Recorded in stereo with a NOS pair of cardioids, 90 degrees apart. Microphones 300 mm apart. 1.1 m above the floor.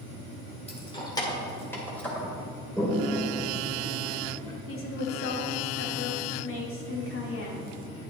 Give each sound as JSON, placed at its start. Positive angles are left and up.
{"t": 0.7, "sound": "keys jangling", "azimuth_deg": 20, "distance_m": 2.0}
{"t": 2.8, "sound": "a toilet flushing", "azimuth_deg": 5, "distance_m": 3.0}
{"t": 4.7, "sound": "a woman speaking", "azimuth_deg": 45, "distance_m": 2.5}